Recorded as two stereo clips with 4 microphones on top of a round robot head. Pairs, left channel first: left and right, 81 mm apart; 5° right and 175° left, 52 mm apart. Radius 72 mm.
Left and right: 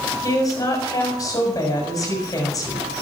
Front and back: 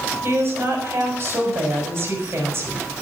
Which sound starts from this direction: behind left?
A woman speaking, at 0.2 s.